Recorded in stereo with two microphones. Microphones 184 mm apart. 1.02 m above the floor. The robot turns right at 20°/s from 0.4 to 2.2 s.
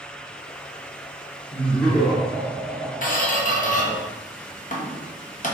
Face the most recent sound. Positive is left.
turn(degrees=45)  # may be behind; listen again after turning